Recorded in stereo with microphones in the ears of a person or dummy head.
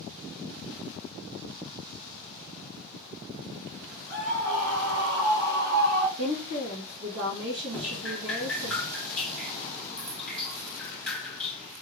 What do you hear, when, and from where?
4.1 s a scream: 45° right (ahead or behind), 2.5 m; by 6.1 s 85° right, 3 m
6.2 s a woman speaking: 80° right, 2 m
7.7 s dripping: centre (ahead or behind), 1.1 m